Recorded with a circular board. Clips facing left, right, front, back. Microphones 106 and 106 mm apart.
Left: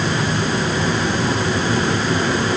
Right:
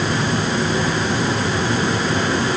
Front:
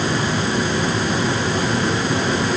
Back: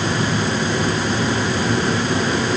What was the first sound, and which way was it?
Only background noise.